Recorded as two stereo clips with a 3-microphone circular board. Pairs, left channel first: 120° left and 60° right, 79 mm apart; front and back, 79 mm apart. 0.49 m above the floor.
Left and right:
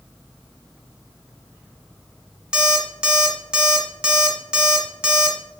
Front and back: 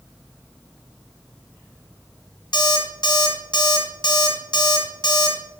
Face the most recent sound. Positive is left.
turn(degrees=20)